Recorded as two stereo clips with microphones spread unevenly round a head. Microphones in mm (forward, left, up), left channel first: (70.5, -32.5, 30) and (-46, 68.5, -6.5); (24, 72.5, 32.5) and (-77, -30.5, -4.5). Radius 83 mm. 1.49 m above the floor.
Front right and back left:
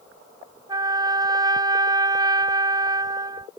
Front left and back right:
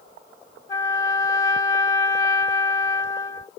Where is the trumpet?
65° left.